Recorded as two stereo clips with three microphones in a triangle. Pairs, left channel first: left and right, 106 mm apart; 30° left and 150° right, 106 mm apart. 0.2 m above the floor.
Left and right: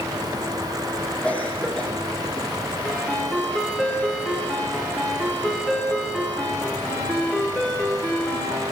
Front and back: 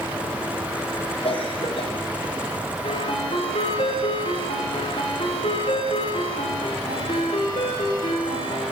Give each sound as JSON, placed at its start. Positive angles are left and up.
{"t": 1.2, "sound": "a cough", "azimuth_deg": 10, "distance_m": 9.5}
{"t": 2.8, "sound": "a ringtone", "azimuth_deg": 15, "distance_m": 9.0}